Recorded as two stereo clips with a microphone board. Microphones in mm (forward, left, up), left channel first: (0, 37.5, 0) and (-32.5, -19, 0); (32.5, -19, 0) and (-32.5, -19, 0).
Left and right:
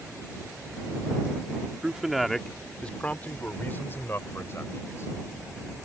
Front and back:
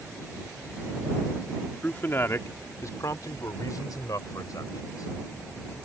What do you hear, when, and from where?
1.8 s a man speaking: 50° right; by 5.1 s 15° left